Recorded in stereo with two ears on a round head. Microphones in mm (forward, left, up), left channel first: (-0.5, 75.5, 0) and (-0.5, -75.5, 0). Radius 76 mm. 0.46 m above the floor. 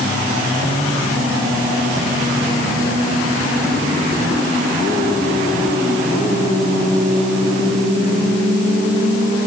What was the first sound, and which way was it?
Only background noise.